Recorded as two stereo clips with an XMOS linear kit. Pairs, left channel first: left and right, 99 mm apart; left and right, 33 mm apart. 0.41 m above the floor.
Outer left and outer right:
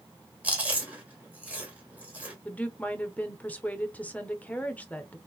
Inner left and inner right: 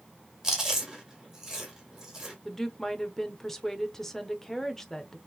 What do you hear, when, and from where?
0.4 s chewing: 15° right (ahead or behind), 1.9 m
2.5 s a woman speaking: 15° left (ahead or behind), 0.8 m